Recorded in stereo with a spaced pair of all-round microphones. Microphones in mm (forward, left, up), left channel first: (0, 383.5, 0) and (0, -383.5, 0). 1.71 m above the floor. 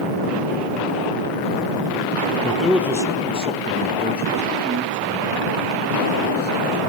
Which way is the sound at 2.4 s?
5° left (ahead or behind).